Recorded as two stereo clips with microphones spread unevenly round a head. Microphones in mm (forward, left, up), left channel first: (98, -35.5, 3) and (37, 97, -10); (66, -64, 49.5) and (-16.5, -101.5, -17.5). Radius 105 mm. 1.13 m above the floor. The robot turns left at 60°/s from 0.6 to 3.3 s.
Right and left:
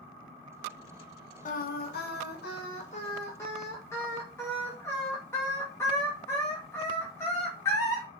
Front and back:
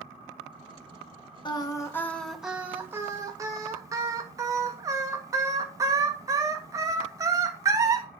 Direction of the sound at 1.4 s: 35° right.